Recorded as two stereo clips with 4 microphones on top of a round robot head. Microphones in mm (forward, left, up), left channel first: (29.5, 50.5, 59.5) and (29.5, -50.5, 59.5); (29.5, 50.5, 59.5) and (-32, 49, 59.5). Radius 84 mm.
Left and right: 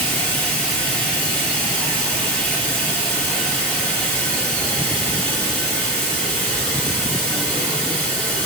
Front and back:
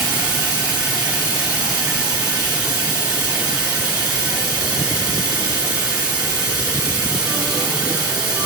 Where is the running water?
170° left, 1.6 m.